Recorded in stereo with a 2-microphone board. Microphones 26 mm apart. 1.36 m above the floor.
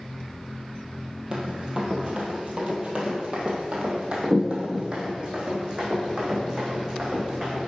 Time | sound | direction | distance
1.3 | running footsteps | 30° right (ahead or behind) | 2.0 m